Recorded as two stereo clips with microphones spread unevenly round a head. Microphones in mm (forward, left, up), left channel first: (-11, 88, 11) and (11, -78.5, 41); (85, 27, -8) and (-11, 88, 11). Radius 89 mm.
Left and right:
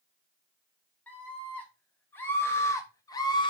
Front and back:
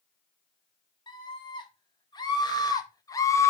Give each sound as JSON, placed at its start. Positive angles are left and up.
{"t": 1.1, "sound": "a scream", "azimuth_deg": 15, "distance_m": 3.0}